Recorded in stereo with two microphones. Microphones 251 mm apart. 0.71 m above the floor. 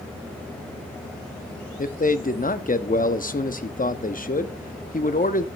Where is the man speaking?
35° left (ahead or behind), 0.7 m.